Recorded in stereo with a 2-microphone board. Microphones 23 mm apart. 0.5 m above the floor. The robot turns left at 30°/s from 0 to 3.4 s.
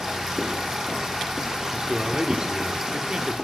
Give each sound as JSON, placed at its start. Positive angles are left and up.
{"t": 1.7, "sound": "a man speaking", "side_deg": -25, "distance_m": 1.5}